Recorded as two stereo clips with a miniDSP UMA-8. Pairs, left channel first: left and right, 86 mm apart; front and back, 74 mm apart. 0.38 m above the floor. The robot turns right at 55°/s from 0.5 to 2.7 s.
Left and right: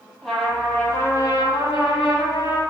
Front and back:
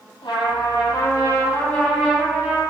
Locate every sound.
0.2 s a trumpet: straight ahead, 1.8 m; by 2.6 s 115° left, 1.8 m